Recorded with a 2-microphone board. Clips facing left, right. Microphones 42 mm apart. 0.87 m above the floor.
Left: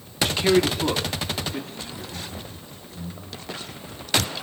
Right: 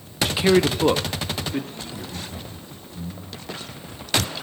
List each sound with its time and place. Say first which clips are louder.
0.2 s a man speaking: right 2 dB; centre (ahead or behind), 0.6 m; by 1.7 s 40° right (ahead or behind), 1.5 m
1.8 s laughter: right 1 dB; 15° right (ahead or behind), 10 m